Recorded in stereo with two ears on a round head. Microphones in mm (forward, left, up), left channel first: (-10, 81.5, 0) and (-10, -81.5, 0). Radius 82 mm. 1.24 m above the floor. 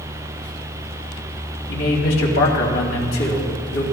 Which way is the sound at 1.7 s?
80° left.